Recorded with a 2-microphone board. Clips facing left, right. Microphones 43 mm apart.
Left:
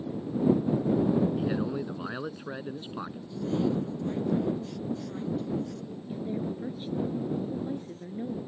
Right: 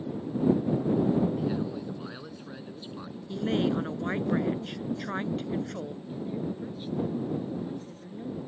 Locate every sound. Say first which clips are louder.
1.4 s a man speaking: left 1 dB; 30° left (ahead or behind)
3.3 s a woman speaking: right 2 dB; 65° right (ahead or behind)
6.1 s a woman speaking: left 2 dB; 10° left (ahead or behind)